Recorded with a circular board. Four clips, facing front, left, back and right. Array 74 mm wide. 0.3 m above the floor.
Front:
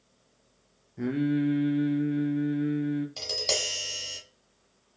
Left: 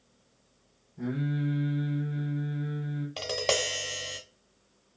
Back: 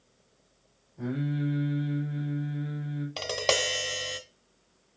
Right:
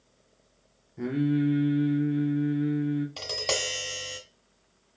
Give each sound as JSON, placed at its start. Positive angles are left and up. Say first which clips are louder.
{"t": 1.0, "sound": "singing", "louder": "right 6 dB, front 5 dB", "azimuth_deg": -40, "distance_m": 1.0}
{"t": 3.2, "sound": "tapping", "louder": "left 3 dB, back 5 dB", "azimuth_deg": 160, "distance_m": 0.7}